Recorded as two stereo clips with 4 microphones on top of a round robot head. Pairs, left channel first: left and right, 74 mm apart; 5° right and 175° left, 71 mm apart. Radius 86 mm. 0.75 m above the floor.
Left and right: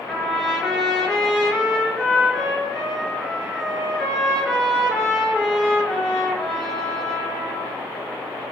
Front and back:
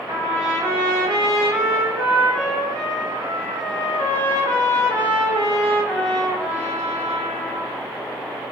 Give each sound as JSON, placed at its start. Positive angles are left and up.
{"t": 0.1, "sound": "a trumpet", "azimuth_deg": 170, "distance_m": 3.0}